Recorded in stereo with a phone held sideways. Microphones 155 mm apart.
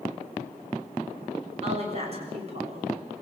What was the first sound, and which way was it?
A woman speaking, 40° right (ahead or behind).